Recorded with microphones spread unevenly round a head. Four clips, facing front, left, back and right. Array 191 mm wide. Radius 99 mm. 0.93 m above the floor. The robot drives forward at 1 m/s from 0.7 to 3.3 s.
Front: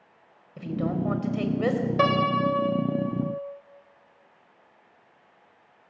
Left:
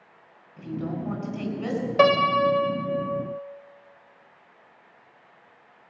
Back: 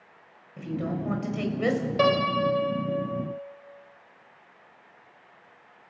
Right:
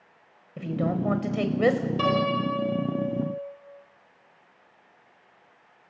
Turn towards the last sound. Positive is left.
turn(degrees=115)